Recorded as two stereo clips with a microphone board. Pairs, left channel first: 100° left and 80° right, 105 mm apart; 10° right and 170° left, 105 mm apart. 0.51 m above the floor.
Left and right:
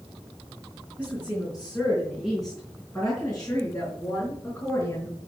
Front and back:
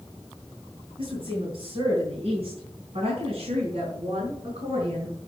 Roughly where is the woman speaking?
Behind right.